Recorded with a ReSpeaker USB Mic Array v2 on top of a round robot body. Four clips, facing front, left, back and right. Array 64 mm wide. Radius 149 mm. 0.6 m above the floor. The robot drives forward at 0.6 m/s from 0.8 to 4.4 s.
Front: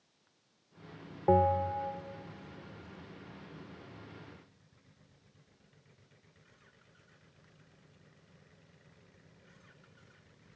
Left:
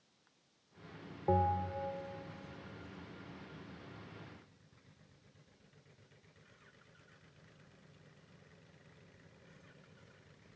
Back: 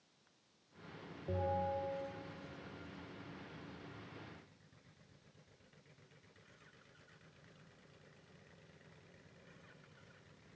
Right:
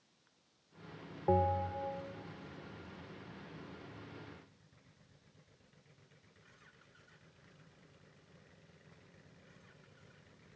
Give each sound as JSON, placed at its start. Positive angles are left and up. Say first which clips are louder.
{"t": 1.3, "sound": "a bell", "louder": "right 1 dB, front 11 dB", "azimuth_deg": 0, "distance_m": 1.2}